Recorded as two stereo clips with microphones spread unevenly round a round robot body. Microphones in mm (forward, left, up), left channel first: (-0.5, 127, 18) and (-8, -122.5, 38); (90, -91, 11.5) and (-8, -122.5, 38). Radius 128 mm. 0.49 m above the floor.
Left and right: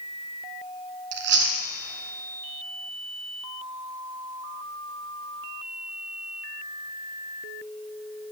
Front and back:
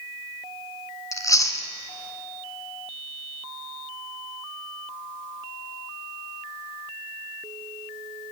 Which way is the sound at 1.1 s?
45° right.